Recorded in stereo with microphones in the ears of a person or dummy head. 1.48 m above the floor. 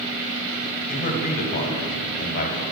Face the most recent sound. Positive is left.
turn(degrees=50)  # may be behind; listen again after turning